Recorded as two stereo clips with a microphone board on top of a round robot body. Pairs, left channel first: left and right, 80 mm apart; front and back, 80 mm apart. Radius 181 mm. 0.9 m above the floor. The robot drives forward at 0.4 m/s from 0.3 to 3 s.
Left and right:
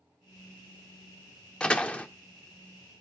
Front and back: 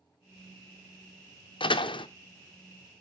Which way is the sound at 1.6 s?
10° left.